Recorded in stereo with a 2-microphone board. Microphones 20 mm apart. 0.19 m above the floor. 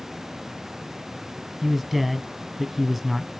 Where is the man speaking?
10° right (ahead or behind), 1.1 m.